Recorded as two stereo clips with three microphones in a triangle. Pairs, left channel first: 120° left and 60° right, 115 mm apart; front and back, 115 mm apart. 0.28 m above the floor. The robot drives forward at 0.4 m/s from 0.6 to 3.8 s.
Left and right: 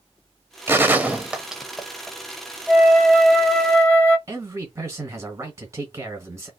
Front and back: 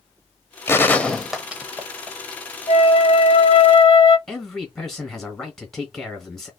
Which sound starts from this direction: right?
A man speaking, at 4.3 s.